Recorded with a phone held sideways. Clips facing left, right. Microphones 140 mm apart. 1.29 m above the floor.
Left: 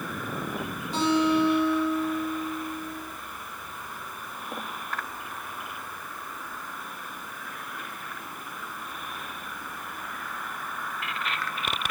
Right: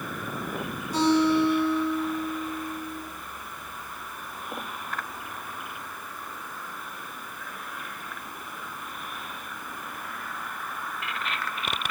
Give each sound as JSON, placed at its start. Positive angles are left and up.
{"t": 0.9, "sound": "a guitar", "side_deg": 25, "distance_m": 7.5}